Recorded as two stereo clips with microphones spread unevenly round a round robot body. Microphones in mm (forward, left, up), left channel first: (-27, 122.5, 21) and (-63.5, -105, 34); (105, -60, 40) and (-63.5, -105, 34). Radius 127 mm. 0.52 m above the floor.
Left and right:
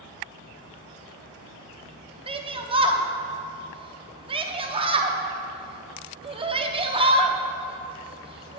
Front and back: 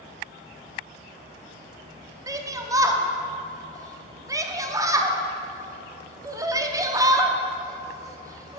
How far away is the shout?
About 0.7 m.